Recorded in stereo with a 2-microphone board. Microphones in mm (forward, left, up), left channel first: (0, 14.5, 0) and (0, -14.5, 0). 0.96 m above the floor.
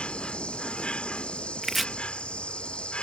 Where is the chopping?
5° right (ahead or behind).